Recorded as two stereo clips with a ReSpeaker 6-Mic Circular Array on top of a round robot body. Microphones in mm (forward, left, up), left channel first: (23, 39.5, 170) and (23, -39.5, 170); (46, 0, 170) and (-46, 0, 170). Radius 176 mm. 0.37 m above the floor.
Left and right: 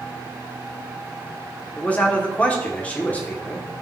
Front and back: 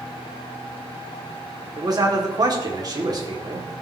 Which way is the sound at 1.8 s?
155° left.